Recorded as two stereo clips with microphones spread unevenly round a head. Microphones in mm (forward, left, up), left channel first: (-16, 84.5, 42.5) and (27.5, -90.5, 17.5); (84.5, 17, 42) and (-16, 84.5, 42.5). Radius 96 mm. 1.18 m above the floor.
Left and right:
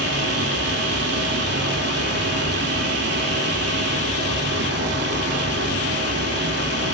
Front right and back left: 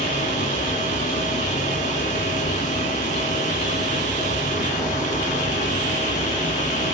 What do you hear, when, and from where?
0.0 s a fan: 55° right, 1.0 m